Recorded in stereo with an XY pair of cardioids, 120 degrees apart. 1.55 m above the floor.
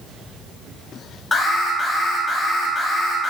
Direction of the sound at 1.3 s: 15° left.